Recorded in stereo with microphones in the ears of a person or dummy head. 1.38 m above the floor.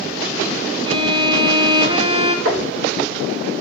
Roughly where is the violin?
Right.